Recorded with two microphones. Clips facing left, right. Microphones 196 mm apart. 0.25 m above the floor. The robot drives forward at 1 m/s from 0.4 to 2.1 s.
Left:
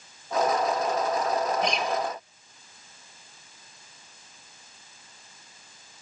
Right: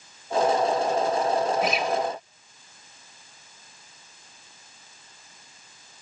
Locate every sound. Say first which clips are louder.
1.6 s a guitar: right 2 dB; 5° right (ahead or behind), 1.9 m